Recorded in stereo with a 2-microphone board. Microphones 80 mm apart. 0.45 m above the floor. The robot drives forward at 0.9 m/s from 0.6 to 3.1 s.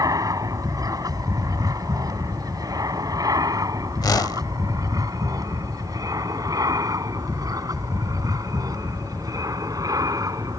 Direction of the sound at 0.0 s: 50° right (ahead or behind).